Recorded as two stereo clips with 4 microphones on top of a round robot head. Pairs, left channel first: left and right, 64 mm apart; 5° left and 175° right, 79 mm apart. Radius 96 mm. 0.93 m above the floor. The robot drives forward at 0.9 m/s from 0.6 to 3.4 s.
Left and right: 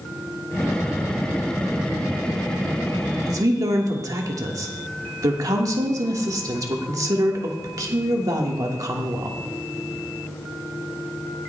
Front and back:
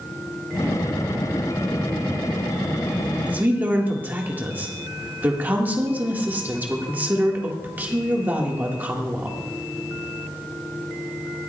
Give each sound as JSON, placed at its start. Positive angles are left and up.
{"t": 3.3, "sound": "a woman speaking", "azimuth_deg": -105, "distance_m": 1.6}